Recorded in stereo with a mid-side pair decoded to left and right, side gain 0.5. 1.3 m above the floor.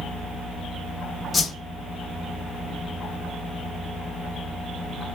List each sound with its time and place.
1.3 s a whoosh: 35° left, 1.1 m